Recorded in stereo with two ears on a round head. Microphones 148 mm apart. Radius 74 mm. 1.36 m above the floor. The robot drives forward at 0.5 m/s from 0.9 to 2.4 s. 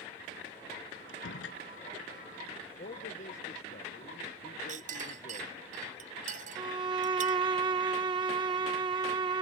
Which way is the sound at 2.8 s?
50° left (ahead or behind).